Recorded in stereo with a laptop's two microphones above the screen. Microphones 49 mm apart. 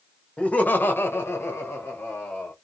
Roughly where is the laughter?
Left.